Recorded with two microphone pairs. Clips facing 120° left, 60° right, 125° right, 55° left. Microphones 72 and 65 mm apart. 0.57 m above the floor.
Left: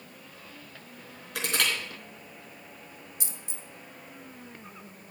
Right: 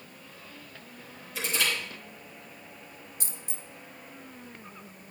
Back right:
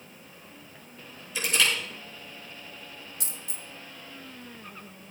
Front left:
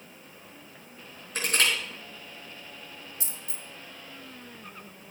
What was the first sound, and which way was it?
Crushing, 100° left.